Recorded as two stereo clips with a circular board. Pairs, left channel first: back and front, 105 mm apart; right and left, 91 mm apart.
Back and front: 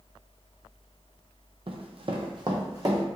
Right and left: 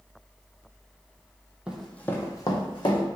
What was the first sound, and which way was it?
Running footsteps, 10° left.